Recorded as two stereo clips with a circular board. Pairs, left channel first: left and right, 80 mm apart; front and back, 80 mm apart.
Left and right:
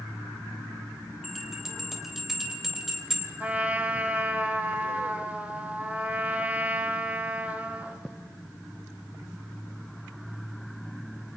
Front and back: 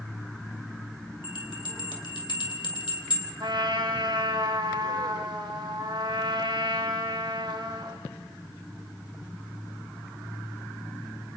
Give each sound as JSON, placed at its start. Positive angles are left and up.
{"t": 1.2, "sound": "a bell", "azimuth_deg": 0, "distance_m": 3.0}
{"t": 3.4, "sound": "a trumpet", "azimuth_deg": -160, "distance_m": 1.7}